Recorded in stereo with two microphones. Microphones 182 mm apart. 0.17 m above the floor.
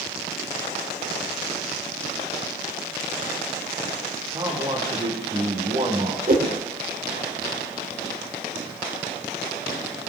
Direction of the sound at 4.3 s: 25° right (ahead or behind).